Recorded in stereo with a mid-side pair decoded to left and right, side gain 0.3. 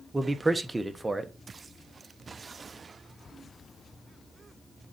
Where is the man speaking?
30° right, 1.2 m.